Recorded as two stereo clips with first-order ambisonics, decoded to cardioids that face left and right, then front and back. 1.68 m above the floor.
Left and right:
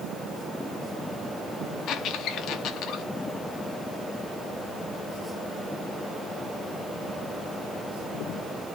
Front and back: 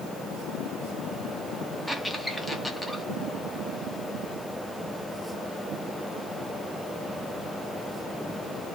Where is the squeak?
85° left, 0.6 m.